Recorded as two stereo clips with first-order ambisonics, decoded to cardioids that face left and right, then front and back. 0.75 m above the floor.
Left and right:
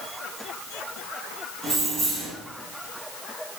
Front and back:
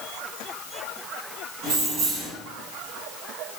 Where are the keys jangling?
160° right, 1.7 m.